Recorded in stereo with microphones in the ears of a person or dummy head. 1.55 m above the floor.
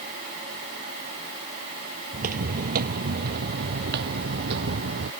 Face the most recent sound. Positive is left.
turn(degrees=-60)  # may be behind; listen again after turning